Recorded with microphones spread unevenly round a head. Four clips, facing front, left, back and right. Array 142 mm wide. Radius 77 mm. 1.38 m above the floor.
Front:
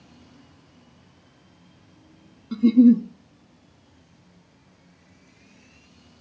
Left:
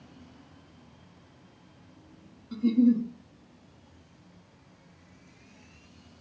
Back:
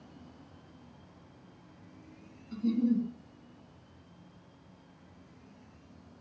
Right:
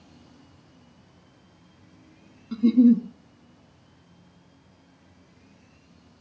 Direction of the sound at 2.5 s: 25° right.